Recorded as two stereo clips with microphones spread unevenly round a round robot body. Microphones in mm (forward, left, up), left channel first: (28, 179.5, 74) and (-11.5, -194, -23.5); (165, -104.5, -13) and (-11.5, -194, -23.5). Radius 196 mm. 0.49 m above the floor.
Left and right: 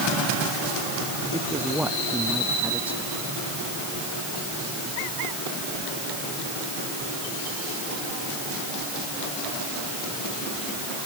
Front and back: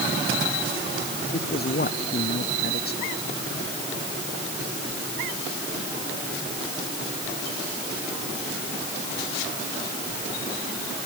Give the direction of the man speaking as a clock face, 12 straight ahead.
12 o'clock.